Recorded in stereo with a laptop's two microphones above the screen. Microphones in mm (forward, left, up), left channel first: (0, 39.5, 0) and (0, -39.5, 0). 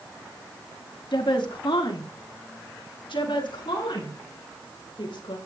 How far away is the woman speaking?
About 1.9 m.